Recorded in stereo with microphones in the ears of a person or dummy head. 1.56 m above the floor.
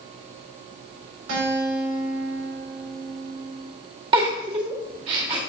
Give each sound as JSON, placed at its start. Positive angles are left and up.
{"t": 1.3, "sound": "a guitar", "side_deg": -80, "distance_m": 3.0}
{"t": 4.1, "sound": "a giggle", "side_deg": -30, "distance_m": 1.6}